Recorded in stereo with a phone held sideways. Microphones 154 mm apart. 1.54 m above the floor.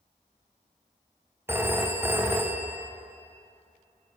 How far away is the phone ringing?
About 0.5 m.